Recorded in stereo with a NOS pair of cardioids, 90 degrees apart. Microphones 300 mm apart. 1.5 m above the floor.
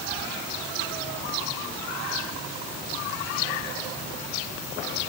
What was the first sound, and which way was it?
Only background noise.